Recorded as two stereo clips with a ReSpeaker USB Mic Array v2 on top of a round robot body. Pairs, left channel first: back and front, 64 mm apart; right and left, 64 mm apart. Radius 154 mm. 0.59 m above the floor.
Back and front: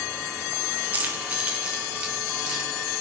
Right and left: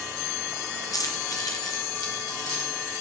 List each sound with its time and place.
0.9 s keys jangling: 65° right, 1.2 m; by 3.0 s 75° right, 4 m